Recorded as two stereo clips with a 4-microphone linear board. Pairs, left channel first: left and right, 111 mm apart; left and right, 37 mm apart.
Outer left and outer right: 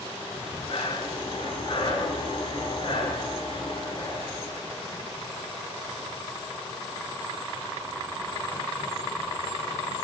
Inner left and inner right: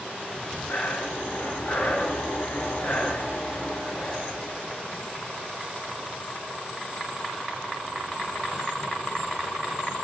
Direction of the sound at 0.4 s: 50° left (ahead or behind).